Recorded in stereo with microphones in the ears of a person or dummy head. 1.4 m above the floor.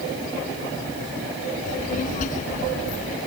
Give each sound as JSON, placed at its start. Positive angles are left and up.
{"t": 1.7, "sound": "a child speaking", "side_deg": 45}